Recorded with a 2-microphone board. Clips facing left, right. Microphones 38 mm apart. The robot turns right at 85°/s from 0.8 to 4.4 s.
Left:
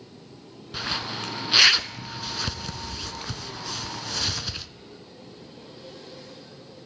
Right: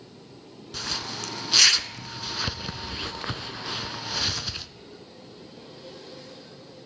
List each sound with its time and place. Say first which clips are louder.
0.7 s a zipper: left 3 dB; 20° left (ahead or behind), 0.5 m; by 4.7 s centre (ahead or behind), 0.5 m